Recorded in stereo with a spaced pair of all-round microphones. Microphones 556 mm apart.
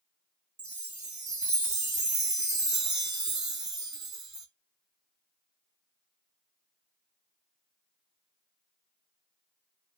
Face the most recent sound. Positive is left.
turn(degrees=-35)  # may be behind; listen again after turning